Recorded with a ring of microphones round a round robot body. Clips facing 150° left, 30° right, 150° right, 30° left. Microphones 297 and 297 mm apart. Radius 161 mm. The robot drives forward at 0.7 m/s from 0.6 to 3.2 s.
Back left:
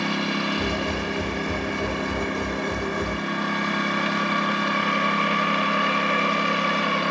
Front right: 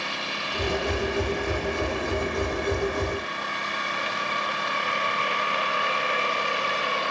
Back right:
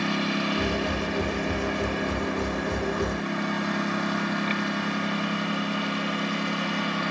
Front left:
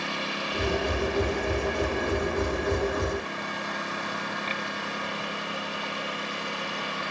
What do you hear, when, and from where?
0.0 s a lawn mower: 170° right; by 7.1 s 175° right